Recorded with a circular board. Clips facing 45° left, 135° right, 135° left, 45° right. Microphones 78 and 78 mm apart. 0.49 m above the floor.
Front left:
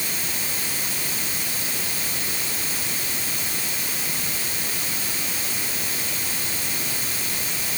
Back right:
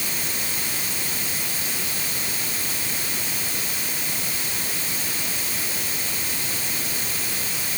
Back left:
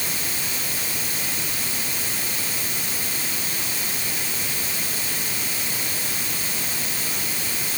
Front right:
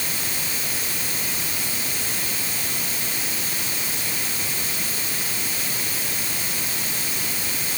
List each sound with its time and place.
Only background noise.